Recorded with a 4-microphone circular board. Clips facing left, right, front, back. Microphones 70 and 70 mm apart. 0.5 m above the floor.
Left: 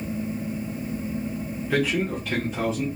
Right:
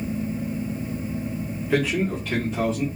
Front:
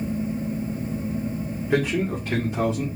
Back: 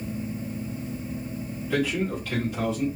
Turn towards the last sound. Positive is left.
turn(degrees=5)